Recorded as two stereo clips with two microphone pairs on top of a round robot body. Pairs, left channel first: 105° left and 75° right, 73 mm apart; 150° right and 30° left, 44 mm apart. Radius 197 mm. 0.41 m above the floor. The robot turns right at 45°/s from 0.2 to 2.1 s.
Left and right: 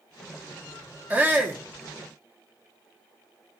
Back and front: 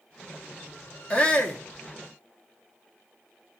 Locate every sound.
1.1 s a shout: 135° right, 1.5 m; by 1.6 s 110° right, 1.5 m